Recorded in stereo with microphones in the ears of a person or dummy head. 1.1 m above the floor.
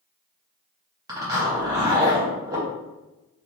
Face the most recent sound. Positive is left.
turn(degrees=-15)  # may be behind; listen again after turning